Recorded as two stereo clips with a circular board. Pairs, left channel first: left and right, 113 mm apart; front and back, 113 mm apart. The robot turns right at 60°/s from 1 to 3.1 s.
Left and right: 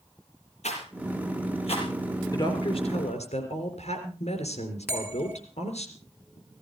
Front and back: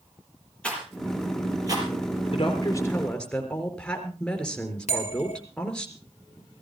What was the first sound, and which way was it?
A rattle, 80° left.